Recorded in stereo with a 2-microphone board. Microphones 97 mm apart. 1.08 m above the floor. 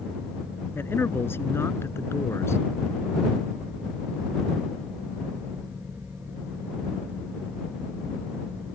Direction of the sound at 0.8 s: 25° left (ahead or behind).